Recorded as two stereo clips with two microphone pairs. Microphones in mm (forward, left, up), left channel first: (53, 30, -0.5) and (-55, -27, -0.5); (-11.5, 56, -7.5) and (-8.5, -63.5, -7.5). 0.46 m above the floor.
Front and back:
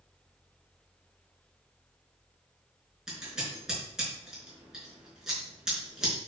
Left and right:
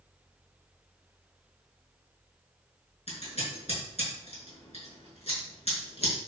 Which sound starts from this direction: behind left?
Scissors, at 3.1 s.